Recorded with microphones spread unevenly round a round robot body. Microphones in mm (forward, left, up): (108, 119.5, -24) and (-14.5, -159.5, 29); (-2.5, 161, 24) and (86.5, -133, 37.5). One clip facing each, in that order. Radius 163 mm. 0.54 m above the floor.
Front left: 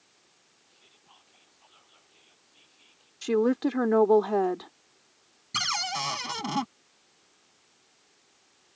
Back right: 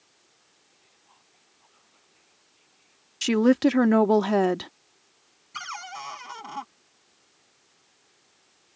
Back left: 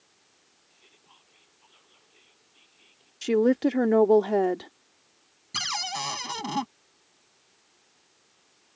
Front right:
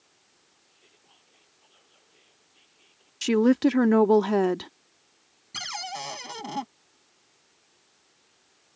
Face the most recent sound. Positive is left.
turn(degrees=40)